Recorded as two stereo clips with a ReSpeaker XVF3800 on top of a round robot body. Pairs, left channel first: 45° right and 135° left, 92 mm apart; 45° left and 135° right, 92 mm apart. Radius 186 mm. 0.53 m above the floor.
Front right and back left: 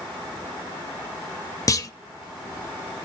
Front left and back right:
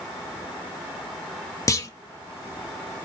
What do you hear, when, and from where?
1.7 s a clunk: straight ahead, 0.7 m